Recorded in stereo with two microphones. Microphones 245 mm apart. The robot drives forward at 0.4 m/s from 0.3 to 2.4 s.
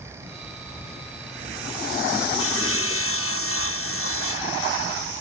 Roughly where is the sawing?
Left.